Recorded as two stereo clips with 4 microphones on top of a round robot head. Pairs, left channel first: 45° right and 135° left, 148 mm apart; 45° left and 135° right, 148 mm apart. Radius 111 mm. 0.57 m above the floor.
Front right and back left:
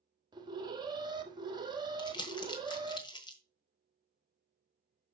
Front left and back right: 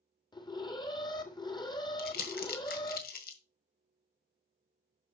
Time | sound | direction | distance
0.3 | an alarm | 90° left | 1.8 m
2.0 | crumpling | 20° left | 1.6 m